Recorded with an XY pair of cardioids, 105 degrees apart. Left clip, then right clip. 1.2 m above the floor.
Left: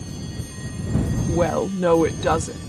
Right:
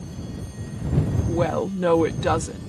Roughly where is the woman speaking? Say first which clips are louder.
Left 3 dB; ahead.